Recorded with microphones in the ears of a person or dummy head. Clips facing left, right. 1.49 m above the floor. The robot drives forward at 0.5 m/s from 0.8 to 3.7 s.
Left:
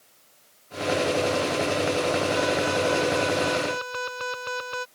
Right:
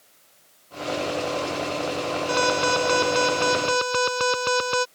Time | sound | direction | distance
2.3 | an alarm | 60° right (ahead or behind) | ?